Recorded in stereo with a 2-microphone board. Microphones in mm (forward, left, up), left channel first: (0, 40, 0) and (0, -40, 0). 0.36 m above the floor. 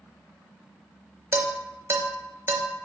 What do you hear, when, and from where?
1.3 s dishes clattering: 30° right (ahead or behind), 0.6 m